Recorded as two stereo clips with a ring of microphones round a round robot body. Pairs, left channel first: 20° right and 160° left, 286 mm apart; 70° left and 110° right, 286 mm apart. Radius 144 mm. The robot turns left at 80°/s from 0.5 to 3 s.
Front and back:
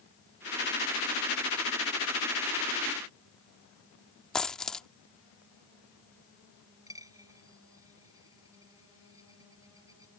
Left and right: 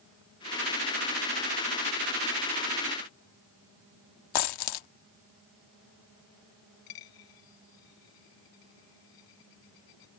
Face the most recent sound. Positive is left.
turn(degrees=80)